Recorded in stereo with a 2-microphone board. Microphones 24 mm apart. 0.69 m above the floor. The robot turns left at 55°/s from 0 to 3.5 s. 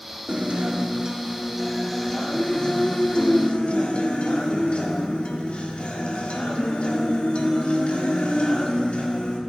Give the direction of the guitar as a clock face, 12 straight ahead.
3 o'clock.